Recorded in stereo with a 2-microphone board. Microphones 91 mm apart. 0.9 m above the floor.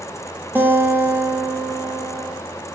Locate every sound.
0.6 s a guitar: 25° right (ahead or behind), 0.9 m